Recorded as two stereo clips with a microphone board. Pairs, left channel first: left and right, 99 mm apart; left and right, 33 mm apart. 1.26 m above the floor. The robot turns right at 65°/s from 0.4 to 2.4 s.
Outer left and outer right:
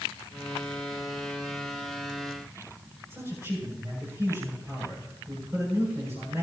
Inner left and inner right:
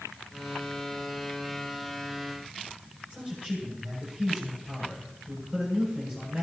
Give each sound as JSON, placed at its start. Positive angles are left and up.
{"t": 3.1, "sound": "a man speaking", "side_deg": -30, "distance_m": 7.5}